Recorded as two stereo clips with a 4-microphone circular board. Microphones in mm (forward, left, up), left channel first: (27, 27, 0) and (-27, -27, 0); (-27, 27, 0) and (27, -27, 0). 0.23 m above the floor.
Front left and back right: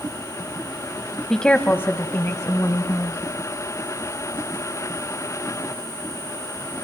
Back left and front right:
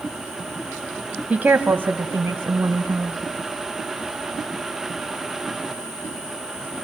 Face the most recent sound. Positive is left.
turn(degrees=10)